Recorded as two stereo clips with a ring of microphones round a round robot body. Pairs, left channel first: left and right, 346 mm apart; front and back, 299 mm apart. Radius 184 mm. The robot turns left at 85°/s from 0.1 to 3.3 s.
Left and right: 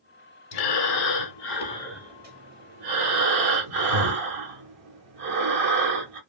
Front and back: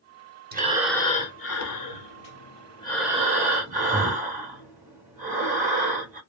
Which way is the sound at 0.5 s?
120° left.